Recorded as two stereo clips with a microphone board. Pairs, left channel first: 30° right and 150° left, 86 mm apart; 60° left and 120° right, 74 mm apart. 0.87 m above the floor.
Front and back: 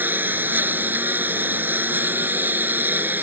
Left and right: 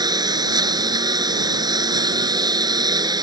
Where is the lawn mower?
140° right.